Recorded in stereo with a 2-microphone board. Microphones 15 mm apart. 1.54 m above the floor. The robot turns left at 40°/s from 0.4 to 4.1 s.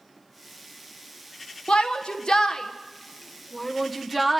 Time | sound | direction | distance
1.7 | a shout | 85° left | 1.1 m